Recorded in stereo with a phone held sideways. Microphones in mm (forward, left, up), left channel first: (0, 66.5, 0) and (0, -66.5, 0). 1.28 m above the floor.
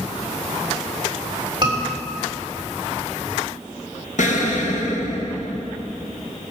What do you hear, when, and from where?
1.6 s a scream: 35° right (ahead or behind), 3.5 m
4.2 s an explosion: 65° left (ahead or behind), 1.4 m